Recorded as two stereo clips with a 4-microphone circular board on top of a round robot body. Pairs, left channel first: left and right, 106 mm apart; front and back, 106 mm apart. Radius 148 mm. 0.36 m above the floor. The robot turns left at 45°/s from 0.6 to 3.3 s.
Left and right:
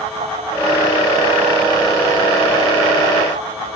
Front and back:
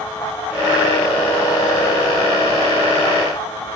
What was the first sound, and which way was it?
Only background noise.